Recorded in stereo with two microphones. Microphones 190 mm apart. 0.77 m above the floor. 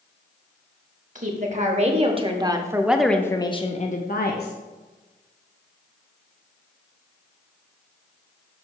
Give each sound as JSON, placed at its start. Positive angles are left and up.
{"t": 1.1, "sound": "a woman speaking", "side_deg": -45, "distance_m": 1.3}